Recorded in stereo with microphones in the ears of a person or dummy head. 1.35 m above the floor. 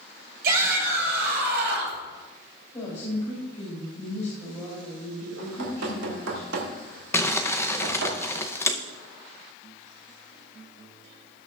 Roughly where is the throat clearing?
No throat clearing in this recording.